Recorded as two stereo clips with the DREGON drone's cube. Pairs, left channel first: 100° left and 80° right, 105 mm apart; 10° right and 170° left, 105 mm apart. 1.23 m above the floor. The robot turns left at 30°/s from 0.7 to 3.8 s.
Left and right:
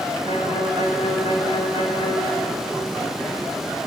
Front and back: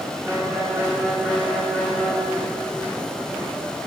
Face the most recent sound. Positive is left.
turn(degrees=5)